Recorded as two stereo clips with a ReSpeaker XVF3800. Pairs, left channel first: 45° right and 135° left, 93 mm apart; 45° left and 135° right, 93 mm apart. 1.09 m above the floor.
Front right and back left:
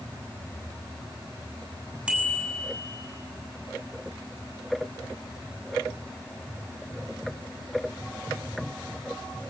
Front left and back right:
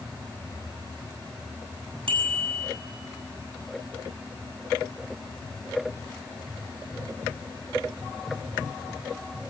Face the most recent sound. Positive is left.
turn(degrees=-145)